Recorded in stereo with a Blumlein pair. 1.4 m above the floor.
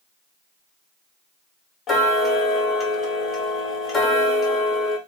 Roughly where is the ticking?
Ahead.